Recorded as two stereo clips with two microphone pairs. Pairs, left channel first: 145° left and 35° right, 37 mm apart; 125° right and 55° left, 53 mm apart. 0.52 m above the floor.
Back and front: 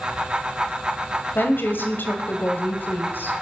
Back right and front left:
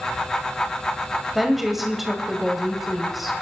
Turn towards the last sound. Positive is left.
turn(degrees=140)